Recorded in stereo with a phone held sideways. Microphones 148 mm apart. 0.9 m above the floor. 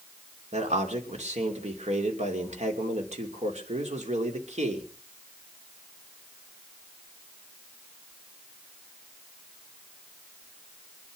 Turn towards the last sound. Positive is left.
turn(degrees=-45)  # may be behind; listen again after turning